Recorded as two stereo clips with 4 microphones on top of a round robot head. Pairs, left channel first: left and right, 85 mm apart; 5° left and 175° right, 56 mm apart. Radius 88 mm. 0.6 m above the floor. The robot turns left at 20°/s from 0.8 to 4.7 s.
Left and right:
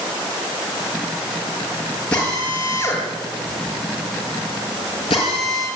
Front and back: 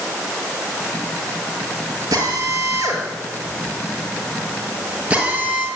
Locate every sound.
2.1 s a drill: 170° left, 7 m; by 5.7 s 115° left, 7 m